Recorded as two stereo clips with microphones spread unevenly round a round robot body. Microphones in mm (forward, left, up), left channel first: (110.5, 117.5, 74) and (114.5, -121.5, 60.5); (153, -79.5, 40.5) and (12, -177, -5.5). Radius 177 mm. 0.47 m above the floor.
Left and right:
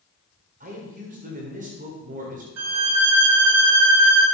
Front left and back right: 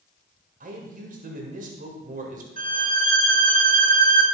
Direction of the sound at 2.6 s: 110° right.